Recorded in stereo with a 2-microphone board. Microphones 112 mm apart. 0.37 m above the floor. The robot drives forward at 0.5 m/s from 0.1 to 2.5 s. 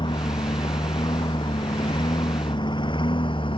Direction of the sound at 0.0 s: 45° left (ahead or behind).